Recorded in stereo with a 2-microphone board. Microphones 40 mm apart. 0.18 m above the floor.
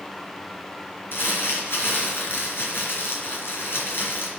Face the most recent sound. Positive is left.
turn(degrees=65)  # may be behind; listen again after turning